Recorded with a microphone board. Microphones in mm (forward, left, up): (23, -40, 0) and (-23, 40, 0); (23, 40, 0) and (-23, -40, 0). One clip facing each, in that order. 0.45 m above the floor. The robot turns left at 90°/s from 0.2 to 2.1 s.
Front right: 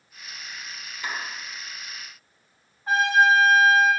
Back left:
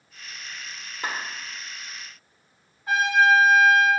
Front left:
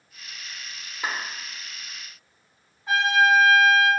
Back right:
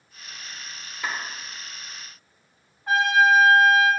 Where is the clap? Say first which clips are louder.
Back left 1 dB, front left 1 dB; 120° left, 1.1 m; by 1.2 s 105° left, 1.1 m.